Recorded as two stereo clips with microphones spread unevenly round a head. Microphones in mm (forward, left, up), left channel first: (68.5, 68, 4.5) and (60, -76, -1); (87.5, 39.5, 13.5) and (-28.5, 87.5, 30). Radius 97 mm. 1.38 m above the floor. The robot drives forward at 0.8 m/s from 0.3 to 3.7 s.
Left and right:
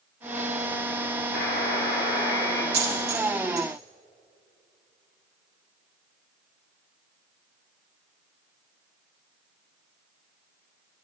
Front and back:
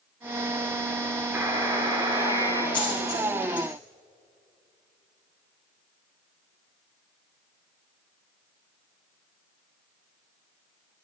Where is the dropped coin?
110° right, 2.5 m; by 3.7 s 125° right, 3 m.